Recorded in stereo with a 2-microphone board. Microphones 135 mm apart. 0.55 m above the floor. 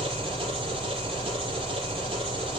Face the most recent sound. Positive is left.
turn(degrees=-40)  # may be behind; listen again after turning